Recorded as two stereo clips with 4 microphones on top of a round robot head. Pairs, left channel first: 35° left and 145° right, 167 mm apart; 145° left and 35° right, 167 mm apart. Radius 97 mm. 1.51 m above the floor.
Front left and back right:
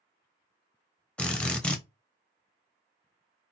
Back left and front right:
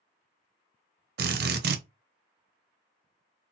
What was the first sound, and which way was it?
A drill, 50° right.